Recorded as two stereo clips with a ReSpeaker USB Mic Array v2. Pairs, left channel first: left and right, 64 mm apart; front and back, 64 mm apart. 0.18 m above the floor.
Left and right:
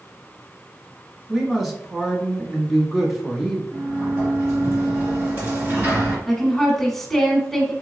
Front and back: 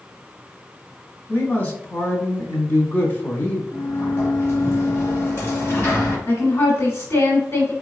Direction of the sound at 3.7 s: 45° right.